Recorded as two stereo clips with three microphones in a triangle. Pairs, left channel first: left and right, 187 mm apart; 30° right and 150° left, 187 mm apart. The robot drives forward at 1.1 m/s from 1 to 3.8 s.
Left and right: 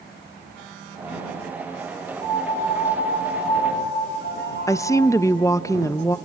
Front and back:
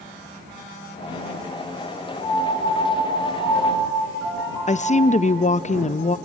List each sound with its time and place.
2.2 s a piano: 45° left, 4 m; by 5.2 s 70° left, 3 m
4.7 s a woman speaking: 15° left, 0.5 m